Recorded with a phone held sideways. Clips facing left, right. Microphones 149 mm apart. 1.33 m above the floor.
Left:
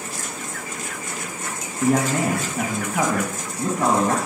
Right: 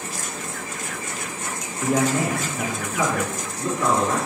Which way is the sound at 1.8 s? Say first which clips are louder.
Left 2 dB; 60° left (ahead or behind).